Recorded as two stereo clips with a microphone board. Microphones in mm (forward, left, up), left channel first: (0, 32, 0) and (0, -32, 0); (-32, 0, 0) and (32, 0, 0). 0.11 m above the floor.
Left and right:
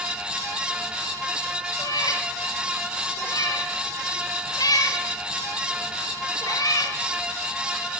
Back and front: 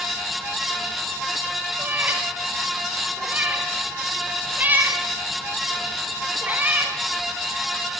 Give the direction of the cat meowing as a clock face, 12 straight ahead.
10 o'clock.